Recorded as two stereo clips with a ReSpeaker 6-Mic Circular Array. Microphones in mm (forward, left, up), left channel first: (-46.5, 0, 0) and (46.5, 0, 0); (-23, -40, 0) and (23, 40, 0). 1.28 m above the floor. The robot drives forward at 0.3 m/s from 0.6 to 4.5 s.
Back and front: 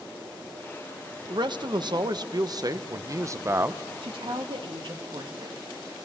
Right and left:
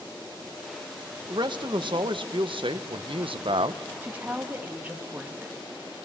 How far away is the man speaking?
About 1.2 m.